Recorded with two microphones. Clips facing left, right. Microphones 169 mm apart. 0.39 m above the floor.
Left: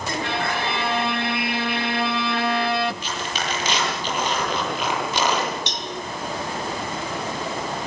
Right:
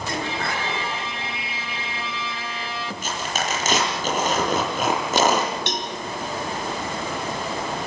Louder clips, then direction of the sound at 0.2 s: Left 2 dB; 75° left (ahead or behind).